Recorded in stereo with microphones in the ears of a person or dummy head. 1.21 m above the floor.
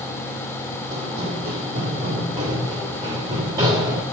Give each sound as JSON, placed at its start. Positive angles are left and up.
{"t": 0.9, "sound": "running footsteps", "side_deg": -35, "distance_m": 2.5}